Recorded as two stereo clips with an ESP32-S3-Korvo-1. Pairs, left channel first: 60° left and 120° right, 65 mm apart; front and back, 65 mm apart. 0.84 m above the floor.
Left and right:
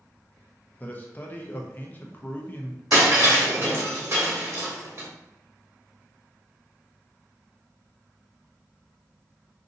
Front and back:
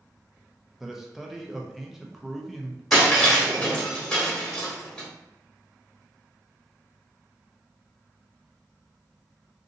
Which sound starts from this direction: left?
A man speaking, at 0.8 s.